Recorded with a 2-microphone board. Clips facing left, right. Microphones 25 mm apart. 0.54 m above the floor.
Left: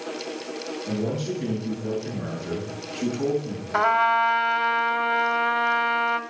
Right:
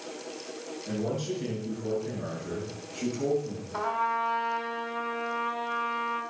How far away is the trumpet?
About 1.2 m.